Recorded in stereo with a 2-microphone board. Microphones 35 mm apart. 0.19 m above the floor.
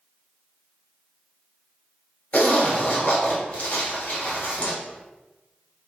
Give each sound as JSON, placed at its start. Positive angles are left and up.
{"t": 2.3, "sound": "a zipper", "side_deg": 40, "distance_m": 1.8}